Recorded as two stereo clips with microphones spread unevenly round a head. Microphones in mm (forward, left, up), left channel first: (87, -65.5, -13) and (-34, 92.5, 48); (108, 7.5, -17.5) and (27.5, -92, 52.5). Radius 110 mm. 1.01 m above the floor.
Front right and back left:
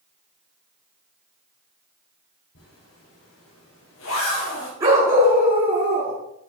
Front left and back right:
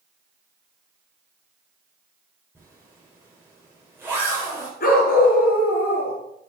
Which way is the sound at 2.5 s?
50° right.